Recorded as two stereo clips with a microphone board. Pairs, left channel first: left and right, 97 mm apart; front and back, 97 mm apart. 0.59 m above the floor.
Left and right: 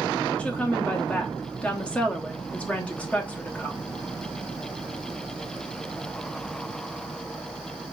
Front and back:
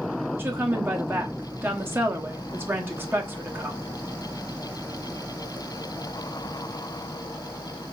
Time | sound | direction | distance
0.4 | a woman speaking | 150° left | 0.9 m